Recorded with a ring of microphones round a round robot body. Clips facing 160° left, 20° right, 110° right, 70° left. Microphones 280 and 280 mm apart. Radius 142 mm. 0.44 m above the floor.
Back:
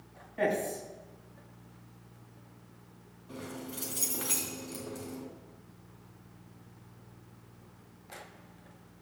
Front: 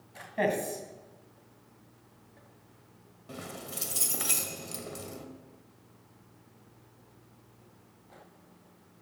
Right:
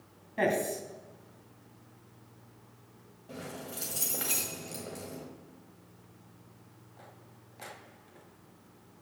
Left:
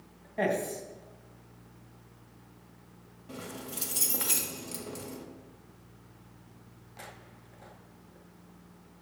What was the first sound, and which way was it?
A man speaking, 50° right.